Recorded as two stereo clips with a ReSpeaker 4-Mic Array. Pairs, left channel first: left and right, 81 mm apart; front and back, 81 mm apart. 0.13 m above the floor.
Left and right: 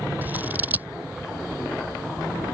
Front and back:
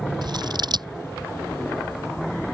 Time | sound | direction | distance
0.2 | scissors | 155° right | ?